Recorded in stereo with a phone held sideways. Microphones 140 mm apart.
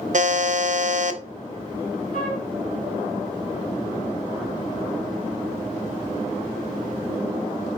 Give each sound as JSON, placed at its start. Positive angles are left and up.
{"t": 0.1, "sound": "a buzzer", "side_deg": -60, "distance_m": 0.5}
{"t": 2.1, "sound": "a flute", "side_deg": 80, "distance_m": 4.0}